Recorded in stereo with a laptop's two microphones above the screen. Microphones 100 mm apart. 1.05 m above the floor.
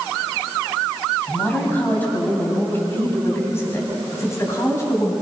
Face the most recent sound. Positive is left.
turn(degrees=30)  # may be behind; listen again after turning